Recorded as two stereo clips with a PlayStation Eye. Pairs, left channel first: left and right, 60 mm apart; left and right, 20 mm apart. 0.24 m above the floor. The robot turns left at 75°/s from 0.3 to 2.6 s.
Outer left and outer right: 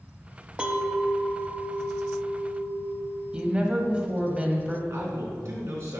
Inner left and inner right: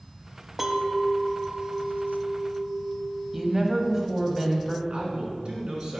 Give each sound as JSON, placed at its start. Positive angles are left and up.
{"t": 0.6, "sound": "a clink", "side_deg": -20, "distance_m": 0.5}
{"t": 3.3, "sound": "a woman speaking", "side_deg": -20, "distance_m": 1.0}
{"t": 4.9, "sound": "a man speaking", "side_deg": -55, "distance_m": 2.5}